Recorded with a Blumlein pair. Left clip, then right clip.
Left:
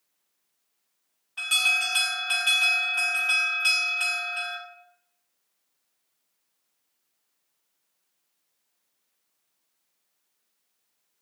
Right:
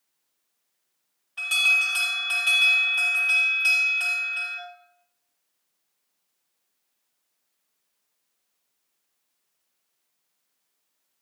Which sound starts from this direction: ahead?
An alarm, at 1.4 s.